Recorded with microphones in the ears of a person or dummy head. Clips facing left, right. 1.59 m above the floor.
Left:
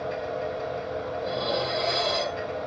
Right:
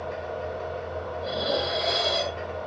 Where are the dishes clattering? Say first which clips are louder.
Right 2 dB; 10° right (ahead or behind), 1.1 m.